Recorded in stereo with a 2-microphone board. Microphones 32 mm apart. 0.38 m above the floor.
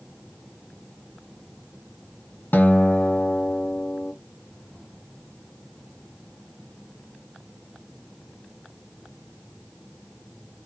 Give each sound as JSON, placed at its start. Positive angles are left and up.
{"t": 2.5, "sound": "a guitar", "side_deg": 70, "distance_m": 0.6}